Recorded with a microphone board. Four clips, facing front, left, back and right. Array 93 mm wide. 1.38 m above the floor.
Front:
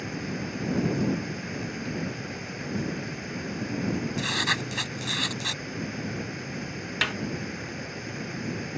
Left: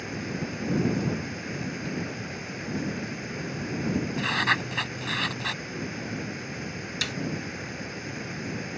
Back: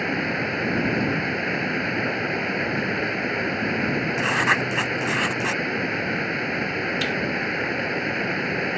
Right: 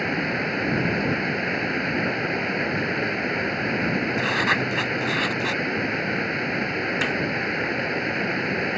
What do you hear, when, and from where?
0.0 s running water: 135° right
4.2 s writing: 170° right
7.0 s a snare drum: 30° right